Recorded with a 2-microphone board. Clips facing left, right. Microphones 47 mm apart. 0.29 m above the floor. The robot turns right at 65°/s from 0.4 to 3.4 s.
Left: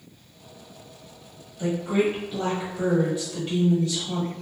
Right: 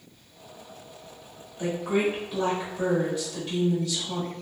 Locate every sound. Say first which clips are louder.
1.6 s a woman speaking: left 2 dB; 55° right, 1.4 m; by 4.3 s 60° left, 1.4 m